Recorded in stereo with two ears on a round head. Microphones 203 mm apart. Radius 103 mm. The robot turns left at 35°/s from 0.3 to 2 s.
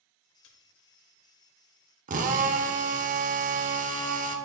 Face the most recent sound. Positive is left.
turn(degrees=-35)  # may be behind; listen again after turning